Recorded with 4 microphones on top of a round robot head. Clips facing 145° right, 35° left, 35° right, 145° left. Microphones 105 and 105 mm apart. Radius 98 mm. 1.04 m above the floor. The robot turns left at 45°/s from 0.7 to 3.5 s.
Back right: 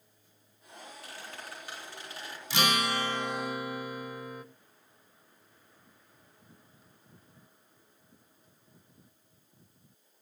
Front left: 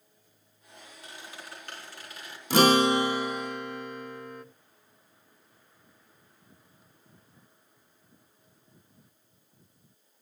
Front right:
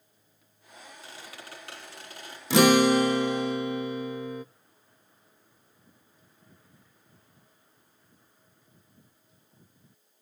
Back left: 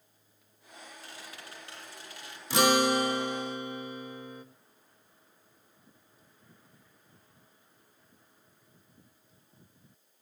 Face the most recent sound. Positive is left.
turn(degrees=-60)